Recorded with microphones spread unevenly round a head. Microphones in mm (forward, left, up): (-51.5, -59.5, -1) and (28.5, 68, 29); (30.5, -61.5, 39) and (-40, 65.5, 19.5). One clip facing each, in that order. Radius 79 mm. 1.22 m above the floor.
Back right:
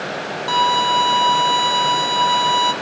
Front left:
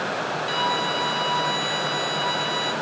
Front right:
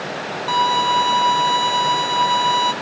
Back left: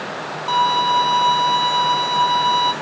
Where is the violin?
140° right, 1.2 m.